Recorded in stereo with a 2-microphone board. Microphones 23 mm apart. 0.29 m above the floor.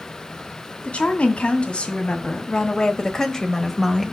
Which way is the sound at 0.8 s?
45° left (ahead or behind).